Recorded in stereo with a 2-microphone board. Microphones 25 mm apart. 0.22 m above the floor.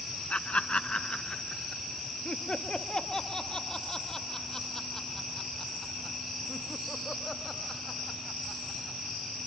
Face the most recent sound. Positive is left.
turn(degrees=15)  # may be behind; listen again after turning